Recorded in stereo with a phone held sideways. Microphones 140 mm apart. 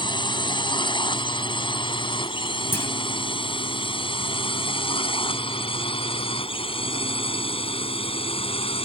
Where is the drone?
35° left (ahead or behind); by 8.9 s 40° left (ahead or behind).